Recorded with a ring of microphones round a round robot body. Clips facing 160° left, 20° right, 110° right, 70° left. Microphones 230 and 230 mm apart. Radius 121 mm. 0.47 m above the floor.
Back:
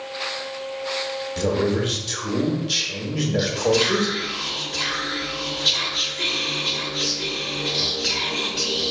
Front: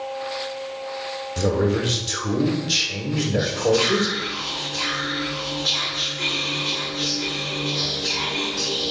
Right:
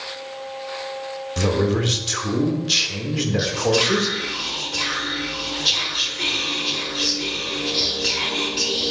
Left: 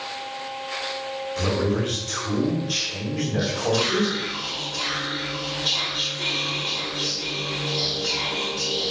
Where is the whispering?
140° right, 1.4 m.